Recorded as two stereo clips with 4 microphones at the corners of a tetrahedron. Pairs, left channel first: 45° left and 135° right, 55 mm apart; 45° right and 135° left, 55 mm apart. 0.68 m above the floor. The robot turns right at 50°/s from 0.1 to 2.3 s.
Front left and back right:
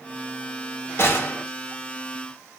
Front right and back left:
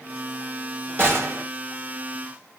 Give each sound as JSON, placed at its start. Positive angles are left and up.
{"t": 1.0, "sound": "a gunshot", "azimuth_deg": 85, "distance_m": 1.9}